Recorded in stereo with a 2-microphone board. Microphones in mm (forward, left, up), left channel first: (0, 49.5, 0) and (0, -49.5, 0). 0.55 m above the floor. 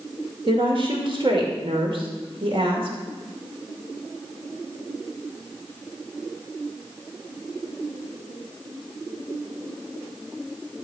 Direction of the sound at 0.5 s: 55° right (ahead or behind).